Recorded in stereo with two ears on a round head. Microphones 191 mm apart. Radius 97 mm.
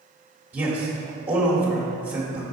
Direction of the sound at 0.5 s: 10° right (ahead or behind).